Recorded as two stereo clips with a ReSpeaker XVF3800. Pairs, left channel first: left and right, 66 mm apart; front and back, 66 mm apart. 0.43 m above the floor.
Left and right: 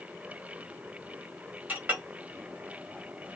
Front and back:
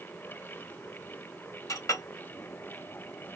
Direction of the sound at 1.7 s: 30° right.